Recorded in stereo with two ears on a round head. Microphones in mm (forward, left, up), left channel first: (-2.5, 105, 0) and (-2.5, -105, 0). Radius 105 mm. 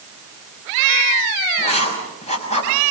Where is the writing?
30° left (ahead or behind), 6.5 m.